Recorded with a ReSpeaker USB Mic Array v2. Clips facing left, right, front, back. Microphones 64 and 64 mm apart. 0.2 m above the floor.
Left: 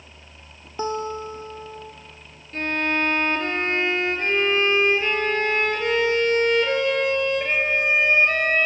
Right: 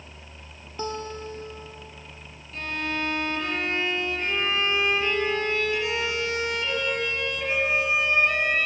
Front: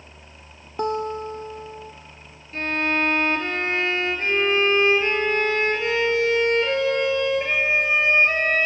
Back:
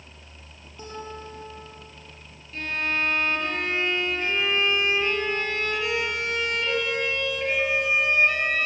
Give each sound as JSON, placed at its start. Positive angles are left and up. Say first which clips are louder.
{"t": 0.8, "sound": "a guitar", "louder": "left 5 dB, front 12 dB", "azimuth_deg": 20, "distance_m": 2.5}
{"t": 2.5, "sound": "a violin", "louder": "left 6 dB, front 4 dB", "azimuth_deg": 45, "distance_m": 4.0}